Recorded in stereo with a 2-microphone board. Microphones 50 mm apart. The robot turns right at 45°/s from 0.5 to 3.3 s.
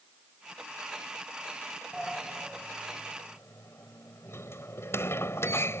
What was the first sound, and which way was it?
A sliding door, 5° right (ahead or behind).